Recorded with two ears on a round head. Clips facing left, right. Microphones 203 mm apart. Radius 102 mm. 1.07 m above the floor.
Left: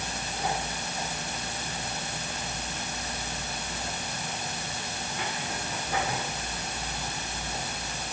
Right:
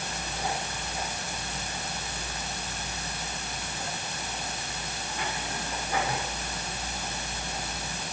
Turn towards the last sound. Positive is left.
No sound to turn to.